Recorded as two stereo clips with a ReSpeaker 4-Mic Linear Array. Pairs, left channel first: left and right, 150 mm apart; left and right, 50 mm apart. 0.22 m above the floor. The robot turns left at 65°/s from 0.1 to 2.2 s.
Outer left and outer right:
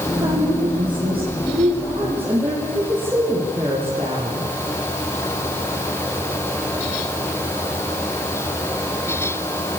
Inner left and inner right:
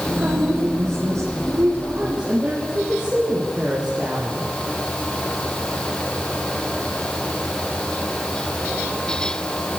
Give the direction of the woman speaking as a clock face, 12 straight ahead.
1 o'clock.